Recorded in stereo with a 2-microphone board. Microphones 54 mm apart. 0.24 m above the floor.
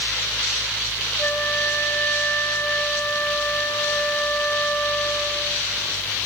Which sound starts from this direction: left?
A flute, at 1.2 s.